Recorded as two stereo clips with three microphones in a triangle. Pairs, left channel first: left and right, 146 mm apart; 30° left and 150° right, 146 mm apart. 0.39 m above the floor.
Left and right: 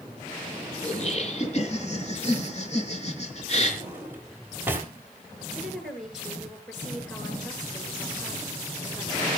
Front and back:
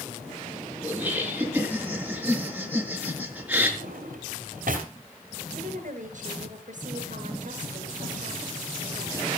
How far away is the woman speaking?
About 5.5 m.